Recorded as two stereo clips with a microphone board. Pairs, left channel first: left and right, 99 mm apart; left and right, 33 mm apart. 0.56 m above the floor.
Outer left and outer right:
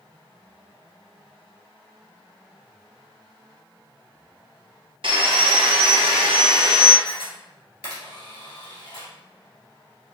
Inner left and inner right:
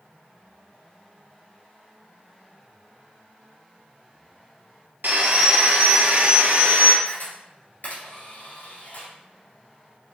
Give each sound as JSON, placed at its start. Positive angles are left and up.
{"t": 5.0, "sound": "sawing", "side_deg": -65, "distance_m": 0.6}
{"t": 7.0, "sound": "a camera shutter", "side_deg": 75, "distance_m": 1.9}